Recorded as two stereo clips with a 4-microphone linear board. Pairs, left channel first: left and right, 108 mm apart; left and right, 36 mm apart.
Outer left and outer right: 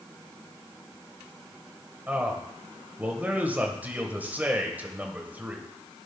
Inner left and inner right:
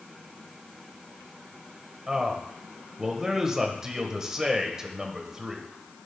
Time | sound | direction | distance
2.1 | a man speaking | 15° right (ahead or behind) | 1.2 m